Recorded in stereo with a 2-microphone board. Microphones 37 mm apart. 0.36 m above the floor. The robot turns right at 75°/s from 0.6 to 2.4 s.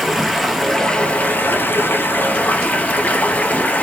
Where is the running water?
Straight ahead, 0.8 m; by 3.8 s 135° left, 0.8 m.